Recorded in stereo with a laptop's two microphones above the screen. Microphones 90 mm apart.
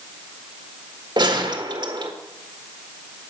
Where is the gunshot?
55° right (ahead or behind), 1.5 m.